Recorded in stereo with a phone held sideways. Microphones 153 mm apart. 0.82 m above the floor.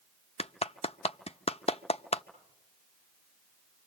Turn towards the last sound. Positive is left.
turn(degrees=40)  # may be behind; listen again after turning